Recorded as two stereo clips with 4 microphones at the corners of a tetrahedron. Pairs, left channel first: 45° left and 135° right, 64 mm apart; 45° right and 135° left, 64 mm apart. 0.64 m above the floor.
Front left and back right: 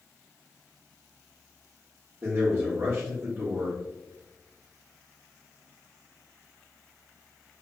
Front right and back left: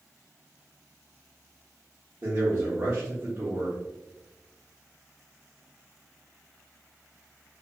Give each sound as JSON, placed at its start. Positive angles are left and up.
{"t": 2.2, "sound": "a man speaking", "azimuth_deg": 180, "distance_m": 1.2}